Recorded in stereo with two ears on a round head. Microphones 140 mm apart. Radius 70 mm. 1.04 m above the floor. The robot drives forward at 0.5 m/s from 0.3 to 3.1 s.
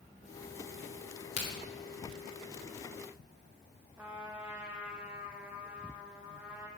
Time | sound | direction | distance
1.4 | a crack | 40° left (ahead or behind) | 3 m
4.0 | a trumpet | 10° right (ahead or behind) | 1.3 m